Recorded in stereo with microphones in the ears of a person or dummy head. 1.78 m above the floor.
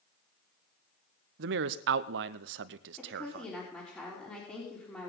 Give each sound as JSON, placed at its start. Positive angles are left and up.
{"t": 1.4, "sound": "a man speaking", "side_deg": -65, "distance_m": 0.8}
{"t": 3.0, "sound": "a woman speaking", "side_deg": 10, "distance_m": 4.0}